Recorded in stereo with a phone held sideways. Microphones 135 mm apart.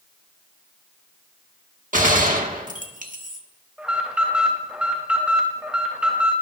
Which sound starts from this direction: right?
A gunshot, at 1.9 s.